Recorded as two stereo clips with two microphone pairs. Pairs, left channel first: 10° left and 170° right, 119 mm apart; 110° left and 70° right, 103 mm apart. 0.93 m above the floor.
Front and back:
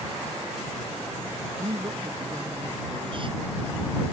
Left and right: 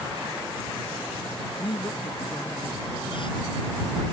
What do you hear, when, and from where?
1.6 s a woman speaking: 145° left